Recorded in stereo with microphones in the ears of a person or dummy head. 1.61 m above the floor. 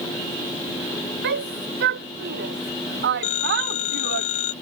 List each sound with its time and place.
1.2 s a shout: 60° right (ahead or behind); by 4.2 s 55° right (ahead or behind)
3.2 s a phone ringing: 40° left (ahead or behind)